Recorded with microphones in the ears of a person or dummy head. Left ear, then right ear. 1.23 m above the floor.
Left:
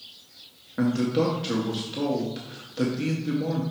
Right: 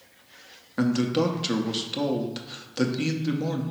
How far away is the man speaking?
About 0.7 m.